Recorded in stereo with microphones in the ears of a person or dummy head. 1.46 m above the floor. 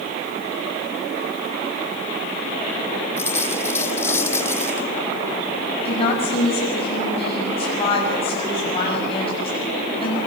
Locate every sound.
3.2 s a dropped coin: 15° left (ahead or behind), 2 m
5.8 s a woman speaking: 35° left (ahead or behind), 8 m